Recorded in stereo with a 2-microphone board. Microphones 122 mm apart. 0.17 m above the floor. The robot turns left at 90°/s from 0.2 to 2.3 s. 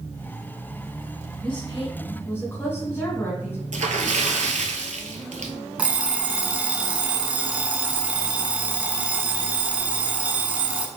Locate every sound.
1.4 s a woman speaking: 105° left, 1.5 m; by 3.6 s 25° left, 1.5 m
3.7 s a splash: 80° right, 0.7 m
5.8 s an alarm clock: 10° right (ahead or behind), 0.7 m